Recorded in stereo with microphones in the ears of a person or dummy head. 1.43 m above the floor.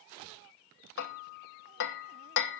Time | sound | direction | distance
1.0 | hammering | 65° left (ahead or behind) | 1.2 m